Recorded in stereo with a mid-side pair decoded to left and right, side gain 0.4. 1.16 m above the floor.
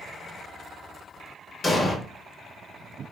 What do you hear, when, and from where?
1.6 s an explosion: 35° left, 1.2 m